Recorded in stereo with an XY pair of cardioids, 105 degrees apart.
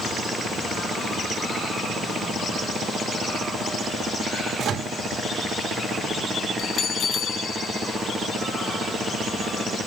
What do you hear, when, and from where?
4.6 s a microwave: 55° right, 2 m
6.6 s a bell: 60° left, 2 m